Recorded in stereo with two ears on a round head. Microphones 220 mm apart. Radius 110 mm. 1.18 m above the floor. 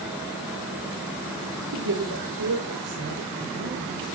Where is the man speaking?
80° right, 3 m; by 4.0 s 50° right (ahead or behind), 5 m.